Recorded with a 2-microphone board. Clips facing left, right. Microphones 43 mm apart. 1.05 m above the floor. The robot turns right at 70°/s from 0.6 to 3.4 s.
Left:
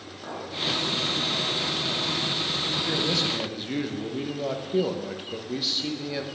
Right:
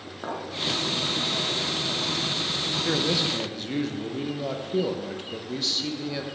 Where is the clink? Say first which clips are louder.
Right 3 dB; 35° right (ahead or behind), 0.9 m.